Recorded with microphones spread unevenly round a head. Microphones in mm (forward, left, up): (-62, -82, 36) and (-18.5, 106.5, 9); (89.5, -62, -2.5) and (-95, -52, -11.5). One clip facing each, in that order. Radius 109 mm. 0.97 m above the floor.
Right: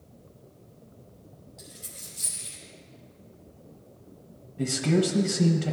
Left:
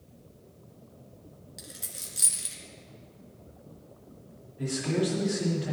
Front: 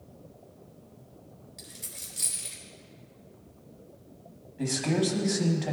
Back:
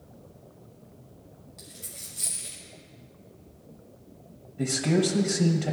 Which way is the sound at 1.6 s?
75° left.